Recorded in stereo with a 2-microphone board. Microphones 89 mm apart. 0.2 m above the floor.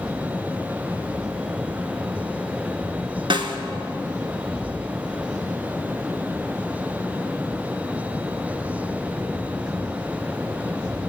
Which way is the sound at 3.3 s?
70° right (ahead or behind).